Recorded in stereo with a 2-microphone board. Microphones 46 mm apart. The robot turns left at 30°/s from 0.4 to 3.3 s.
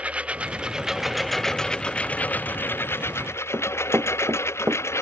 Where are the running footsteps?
65° right (ahead or behind); by 4.8 s 55° right (ahead or behind).